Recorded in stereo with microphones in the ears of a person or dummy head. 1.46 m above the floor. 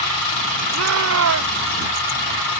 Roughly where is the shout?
Right.